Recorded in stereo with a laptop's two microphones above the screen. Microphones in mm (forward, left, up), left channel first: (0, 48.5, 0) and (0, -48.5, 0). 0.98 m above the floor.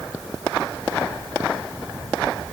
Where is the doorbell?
I don't hear a doorbell.